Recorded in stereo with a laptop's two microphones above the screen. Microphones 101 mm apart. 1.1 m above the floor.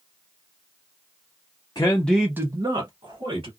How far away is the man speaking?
About 0.7 m.